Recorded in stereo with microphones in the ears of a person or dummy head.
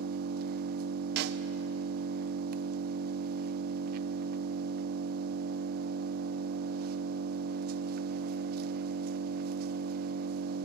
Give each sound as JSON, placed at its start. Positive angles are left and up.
{"t": 0.0, "sound": "an engine running", "side_deg": -55, "distance_m": 0.7}
{"t": 1.2, "sound": "a snare drum", "side_deg": -55, "distance_m": 0.8}